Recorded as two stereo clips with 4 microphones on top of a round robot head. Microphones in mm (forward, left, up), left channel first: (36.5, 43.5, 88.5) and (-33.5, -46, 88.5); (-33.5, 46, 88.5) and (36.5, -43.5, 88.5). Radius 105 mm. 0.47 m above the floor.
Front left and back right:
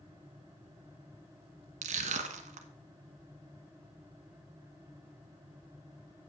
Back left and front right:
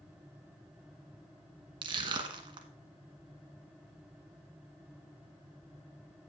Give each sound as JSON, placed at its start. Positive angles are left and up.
{"t": 1.8, "sound": "crushing", "azimuth_deg": -105, "distance_m": 1.1}